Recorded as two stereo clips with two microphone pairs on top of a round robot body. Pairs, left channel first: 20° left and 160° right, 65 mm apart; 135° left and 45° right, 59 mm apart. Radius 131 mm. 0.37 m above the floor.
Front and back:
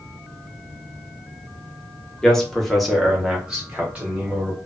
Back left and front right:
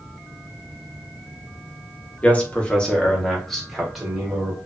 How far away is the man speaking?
About 1.1 m.